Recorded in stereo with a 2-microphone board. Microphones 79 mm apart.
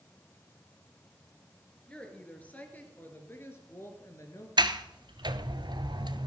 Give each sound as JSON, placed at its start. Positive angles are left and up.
{"t": 1.9, "sound": "a woman speaking", "side_deg": 15, "distance_m": 3.5}
{"t": 4.6, "sound": "a sliding door", "side_deg": -70, "distance_m": 0.9}